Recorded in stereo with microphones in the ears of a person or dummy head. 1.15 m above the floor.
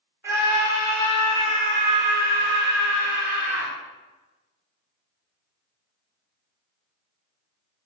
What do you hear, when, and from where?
0.2 s a scream: 15° right (ahead or behind), 2.5 m; by 3.7 s 65° right (ahead or behind), 2.5 m